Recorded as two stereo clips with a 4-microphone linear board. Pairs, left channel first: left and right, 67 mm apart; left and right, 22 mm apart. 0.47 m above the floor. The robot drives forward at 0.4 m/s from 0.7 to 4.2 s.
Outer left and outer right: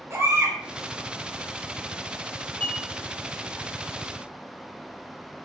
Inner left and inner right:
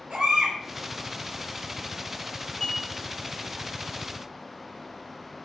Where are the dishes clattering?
25° left (ahead or behind), 1.3 m.